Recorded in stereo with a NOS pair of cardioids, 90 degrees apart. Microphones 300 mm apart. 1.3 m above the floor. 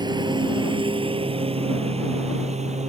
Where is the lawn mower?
15° right; by 2.9 s 25° right.